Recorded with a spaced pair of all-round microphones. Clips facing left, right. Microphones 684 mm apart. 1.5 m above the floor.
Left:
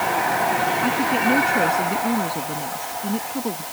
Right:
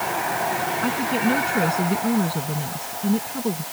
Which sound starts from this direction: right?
A woman speaking, at 0.8 s.